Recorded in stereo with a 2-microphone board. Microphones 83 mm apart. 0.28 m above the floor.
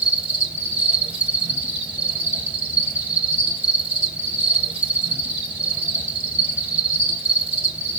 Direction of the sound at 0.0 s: 15° right (ahead or behind).